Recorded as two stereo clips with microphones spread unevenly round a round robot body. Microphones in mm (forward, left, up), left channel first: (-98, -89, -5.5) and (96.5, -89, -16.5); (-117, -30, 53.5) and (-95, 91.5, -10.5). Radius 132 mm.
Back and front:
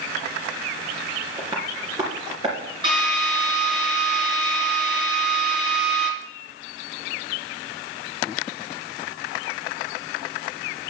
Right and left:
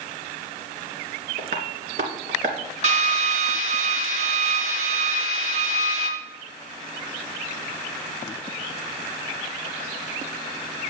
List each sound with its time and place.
1.4 s tapping: 75° left, 2 m
2.8 s a drill: 75° left, 2.5 m